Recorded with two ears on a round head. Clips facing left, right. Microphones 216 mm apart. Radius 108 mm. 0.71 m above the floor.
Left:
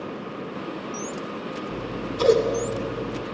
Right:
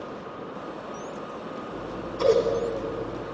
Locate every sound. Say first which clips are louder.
1.7 s scissors: left 3 dB; 50° left (ahead or behind), 1.0 m